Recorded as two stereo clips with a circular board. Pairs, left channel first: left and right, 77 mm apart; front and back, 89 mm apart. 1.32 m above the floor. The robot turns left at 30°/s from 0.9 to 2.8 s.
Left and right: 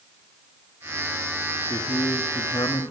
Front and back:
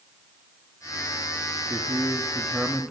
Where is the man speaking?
125° left, 1.9 m; by 2.9 s 90° left, 1.9 m.